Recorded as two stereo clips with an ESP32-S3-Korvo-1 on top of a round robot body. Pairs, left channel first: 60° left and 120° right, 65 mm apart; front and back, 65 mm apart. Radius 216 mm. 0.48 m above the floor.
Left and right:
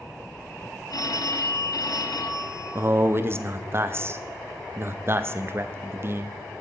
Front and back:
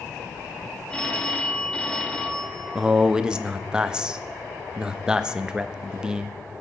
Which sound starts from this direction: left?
A phone ringing, at 0.9 s.